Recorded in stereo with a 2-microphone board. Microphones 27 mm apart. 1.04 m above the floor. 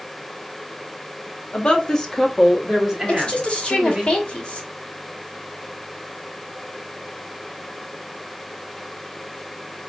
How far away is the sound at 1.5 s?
About 0.8 m.